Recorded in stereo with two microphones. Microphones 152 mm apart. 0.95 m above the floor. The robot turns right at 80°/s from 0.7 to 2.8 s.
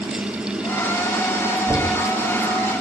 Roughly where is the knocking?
Ahead.